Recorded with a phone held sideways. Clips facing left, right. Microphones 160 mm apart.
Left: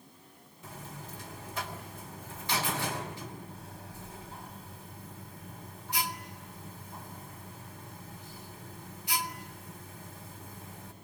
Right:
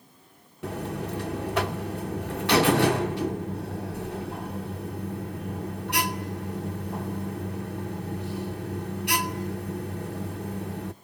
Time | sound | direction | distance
0.6 | a buzzer | 70° right (ahead or behind) | 0.8 m